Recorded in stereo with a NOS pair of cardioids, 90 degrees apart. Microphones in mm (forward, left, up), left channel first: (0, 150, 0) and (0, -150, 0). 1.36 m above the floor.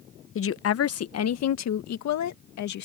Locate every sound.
0.3 s a woman speaking: 45° left; by 2.9 s 70° left